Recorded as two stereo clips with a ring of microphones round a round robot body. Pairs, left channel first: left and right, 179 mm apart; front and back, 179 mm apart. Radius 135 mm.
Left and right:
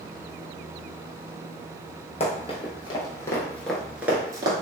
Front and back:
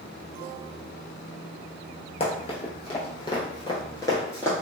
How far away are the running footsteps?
About 1.3 m.